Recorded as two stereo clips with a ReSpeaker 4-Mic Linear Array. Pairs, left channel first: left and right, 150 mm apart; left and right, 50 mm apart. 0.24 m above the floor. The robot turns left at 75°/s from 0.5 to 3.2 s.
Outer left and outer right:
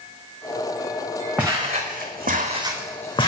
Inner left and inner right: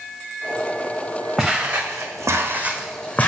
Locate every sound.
1.4 s footsteps: 5° right (ahead or behind), 1.4 m; by 3.3 s 40° left (ahead or behind), 1.1 m